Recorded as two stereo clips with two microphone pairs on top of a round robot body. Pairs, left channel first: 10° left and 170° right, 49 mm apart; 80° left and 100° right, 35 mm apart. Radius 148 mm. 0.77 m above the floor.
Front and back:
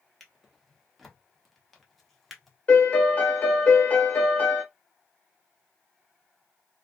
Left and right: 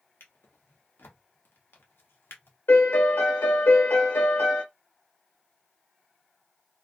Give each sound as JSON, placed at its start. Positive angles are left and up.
{"t": 0.2, "sound": "a drawer", "azimuth_deg": 95, "distance_m": 0.8}
{"t": 2.7, "sound": "a piano", "azimuth_deg": 70, "distance_m": 0.8}